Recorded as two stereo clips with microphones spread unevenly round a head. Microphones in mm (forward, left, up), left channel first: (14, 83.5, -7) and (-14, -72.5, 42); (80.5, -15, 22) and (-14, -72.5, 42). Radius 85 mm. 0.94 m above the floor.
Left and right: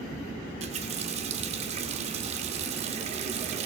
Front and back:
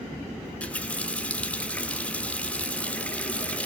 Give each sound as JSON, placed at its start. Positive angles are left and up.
{"t": 0.5, "sound": "a running tap", "azimuth_deg": -50, "distance_m": 1.8}